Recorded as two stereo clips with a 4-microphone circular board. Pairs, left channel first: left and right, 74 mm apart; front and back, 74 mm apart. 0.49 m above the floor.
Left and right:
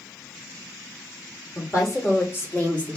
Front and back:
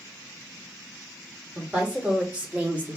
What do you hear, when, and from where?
1.6 s a woman speaking: 105° left, 1.5 m; by 3.0 s 145° left, 1.0 m